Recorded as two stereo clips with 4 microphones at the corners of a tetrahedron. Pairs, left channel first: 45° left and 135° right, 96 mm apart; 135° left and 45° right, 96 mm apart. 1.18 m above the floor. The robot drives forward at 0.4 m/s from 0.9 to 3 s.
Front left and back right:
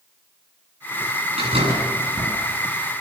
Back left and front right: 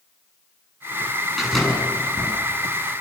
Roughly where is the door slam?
Behind right.